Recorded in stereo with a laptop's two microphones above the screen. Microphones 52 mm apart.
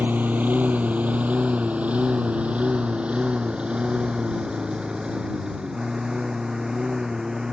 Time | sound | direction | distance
0.0 | a lawn mower | 35° right (ahead or behind) | ?